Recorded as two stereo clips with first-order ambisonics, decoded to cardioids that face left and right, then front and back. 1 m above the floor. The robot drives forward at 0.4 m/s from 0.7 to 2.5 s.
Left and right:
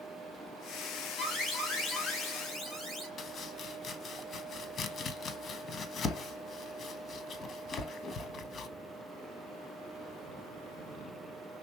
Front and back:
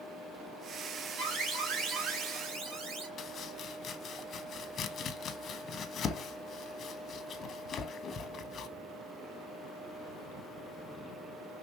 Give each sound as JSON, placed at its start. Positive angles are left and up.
{"t": 1.2, "sound": "an alarm", "azimuth_deg": 155, "distance_m": 4.0}
{"t": 3.2, "sound": "chopping", "azimuth_deg": 45, "distance_m": 0.5}